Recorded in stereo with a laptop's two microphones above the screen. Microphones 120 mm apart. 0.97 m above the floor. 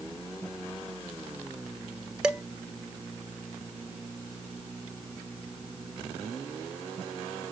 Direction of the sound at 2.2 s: 5° right (ahead or behind).